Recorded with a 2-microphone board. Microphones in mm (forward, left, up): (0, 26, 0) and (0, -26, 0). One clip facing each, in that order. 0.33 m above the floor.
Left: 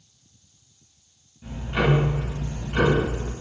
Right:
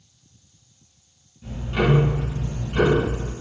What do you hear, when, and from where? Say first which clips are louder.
1.4 s ticking: right 1 dB; 10° left (ahead or behind), 1.9 m